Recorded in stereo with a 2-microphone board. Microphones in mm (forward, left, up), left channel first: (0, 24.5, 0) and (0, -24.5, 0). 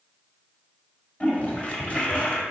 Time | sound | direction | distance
1.2 | a toilet flushing | 30° left (ahead or behind) | 1.7 m